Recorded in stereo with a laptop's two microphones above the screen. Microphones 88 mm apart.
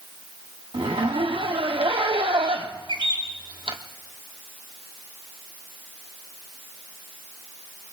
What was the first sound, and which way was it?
A zipper, 80° right.